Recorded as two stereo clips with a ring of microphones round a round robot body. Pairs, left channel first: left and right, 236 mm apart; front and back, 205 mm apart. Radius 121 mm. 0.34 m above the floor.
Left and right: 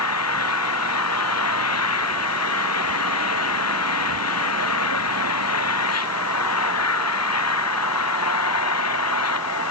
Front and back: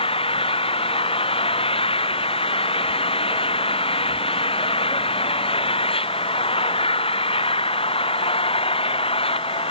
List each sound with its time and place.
0.0 s an engine running: 65° left